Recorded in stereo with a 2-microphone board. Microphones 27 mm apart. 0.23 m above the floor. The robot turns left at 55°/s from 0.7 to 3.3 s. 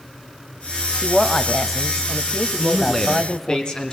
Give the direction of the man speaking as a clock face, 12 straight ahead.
6 o'clock.